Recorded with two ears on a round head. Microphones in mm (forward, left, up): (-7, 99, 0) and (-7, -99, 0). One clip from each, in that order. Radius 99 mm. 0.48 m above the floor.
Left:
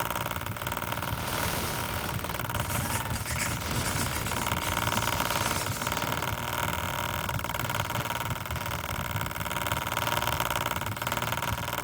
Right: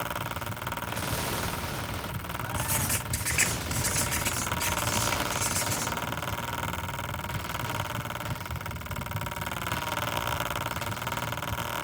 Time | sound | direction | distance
2.5 | writing | 50° right (ahead or behind) | 5.5 m